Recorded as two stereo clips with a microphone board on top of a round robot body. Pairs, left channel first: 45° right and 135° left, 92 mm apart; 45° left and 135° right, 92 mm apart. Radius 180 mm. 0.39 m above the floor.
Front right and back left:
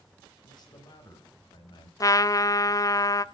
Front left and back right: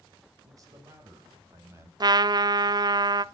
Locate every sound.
0.4 s a man speaking: 85° right, 4 m; by 1.9 s 75° right, 4 m
2.0 s a trumpet: 95° right, 0.6 m